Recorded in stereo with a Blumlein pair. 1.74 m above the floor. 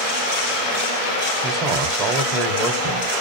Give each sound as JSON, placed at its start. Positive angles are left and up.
{"t": 1.4, "sound": "a man speaking", "azimuth_deg": -30, "distance_m": 1.1}